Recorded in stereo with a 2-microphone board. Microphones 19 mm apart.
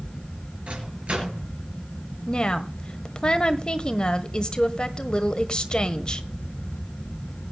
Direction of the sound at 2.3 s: 40° left (ahead or behind).